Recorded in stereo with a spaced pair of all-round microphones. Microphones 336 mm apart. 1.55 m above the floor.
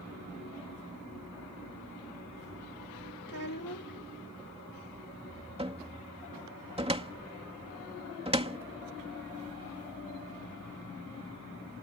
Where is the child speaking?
65° left (ahead or behind).